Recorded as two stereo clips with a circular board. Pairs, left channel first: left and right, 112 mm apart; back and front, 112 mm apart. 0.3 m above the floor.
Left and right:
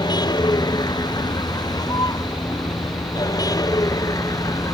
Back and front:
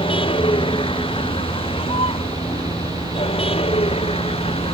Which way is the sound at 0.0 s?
140° left.